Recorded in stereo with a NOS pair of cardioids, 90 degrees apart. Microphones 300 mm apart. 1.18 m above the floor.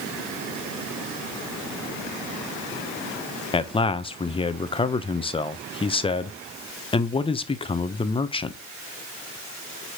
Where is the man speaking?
15° left, 0.6 m.